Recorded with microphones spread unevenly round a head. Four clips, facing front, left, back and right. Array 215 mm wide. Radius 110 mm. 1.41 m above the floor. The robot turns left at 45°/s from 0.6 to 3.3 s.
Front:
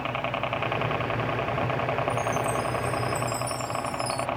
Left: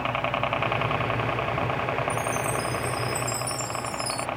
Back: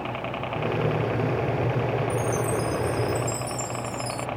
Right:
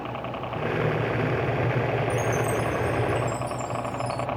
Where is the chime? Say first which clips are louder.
Right 2 dB, back 1 dB; 175° right; by 4.3 s 130° left.